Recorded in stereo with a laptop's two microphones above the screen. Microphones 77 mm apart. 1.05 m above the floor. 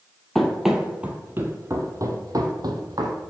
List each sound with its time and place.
0.3 s running footsteps: 5° left (ahead or behind), 1.4 m; by 3.2 s 65° right (ahead or behind), 2 m